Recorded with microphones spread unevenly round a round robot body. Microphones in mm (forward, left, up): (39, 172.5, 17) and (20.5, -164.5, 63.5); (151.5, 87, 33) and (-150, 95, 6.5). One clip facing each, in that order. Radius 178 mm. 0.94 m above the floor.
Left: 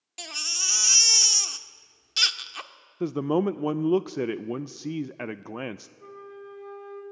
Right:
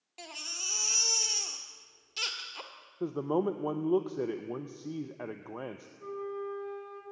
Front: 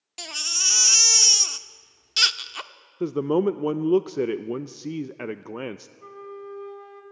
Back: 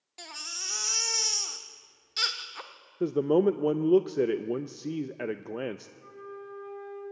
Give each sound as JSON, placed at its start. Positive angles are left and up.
{"t": 0.2, "sound": "a baby crying", "azimuth_deg": 30, "distance_m": 0.9}
{"t": 3.0, "sound": "a man speaking", "azimuth_deg": 80, "distance_m": 0.5}
{"t": 6.0, "sound": "a flute", "azimuth_deg": 10, "distance_m": 3.5}